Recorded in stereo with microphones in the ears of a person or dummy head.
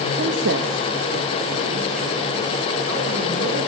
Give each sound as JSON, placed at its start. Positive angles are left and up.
{"t": 0.2, "sound": "a woman speaking", "side_deg": -65, "distance_m": 2.0}